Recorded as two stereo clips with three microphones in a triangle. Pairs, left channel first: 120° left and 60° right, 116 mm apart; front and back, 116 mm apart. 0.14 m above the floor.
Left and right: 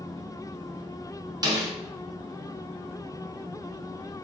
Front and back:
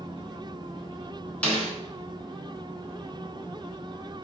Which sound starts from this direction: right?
A snare drum, at 1.4 s.